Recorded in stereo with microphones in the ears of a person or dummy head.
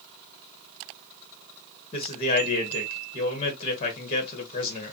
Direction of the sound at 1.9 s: 35° left (ahead or behind).